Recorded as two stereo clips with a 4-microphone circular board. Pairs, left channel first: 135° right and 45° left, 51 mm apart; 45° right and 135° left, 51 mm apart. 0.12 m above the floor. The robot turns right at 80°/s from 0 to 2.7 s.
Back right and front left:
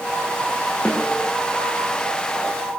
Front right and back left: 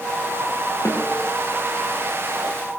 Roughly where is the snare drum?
Right.